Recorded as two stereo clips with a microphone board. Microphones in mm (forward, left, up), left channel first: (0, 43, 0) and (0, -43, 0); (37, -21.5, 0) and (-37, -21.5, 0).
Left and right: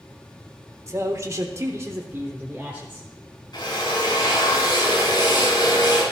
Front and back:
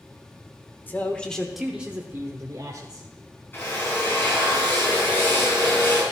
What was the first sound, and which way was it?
A man speaking, 50° right.